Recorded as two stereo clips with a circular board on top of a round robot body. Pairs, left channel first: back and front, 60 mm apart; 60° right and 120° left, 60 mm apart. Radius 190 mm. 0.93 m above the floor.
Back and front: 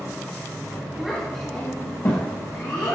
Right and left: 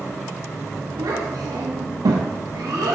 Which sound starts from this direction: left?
A child speaking, at 1.0 s.